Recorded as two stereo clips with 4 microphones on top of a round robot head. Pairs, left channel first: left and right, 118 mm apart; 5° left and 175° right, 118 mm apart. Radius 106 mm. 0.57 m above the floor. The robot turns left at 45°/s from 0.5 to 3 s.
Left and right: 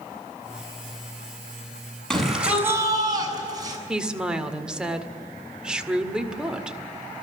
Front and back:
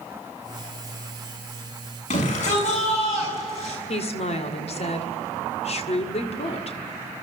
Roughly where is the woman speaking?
Ahead.